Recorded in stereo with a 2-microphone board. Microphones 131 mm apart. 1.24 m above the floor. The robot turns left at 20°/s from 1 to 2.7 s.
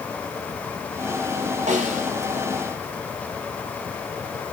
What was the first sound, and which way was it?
A snare drum, 70° right (ahead or behind).